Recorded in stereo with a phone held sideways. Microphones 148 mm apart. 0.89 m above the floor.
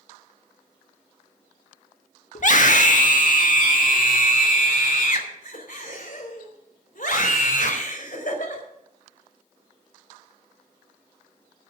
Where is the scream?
55° left (ahead or behind), 1.4 m; by 8.6 s 65° left (ahead or behind), 4.5 m.